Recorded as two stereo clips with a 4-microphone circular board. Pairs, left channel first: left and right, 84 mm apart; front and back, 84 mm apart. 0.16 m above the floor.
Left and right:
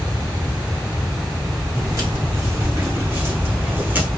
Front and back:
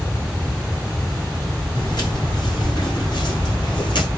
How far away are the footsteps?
About 7 m.